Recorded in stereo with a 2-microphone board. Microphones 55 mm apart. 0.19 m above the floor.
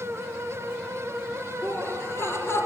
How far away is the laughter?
About 4.5 m.